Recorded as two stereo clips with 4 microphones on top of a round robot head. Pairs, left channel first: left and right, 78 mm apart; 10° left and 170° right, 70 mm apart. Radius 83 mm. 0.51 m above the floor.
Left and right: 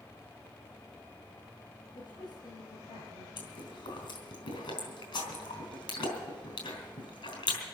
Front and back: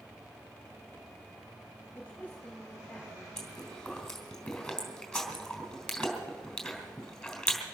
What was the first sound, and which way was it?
A man speaking, 80° left.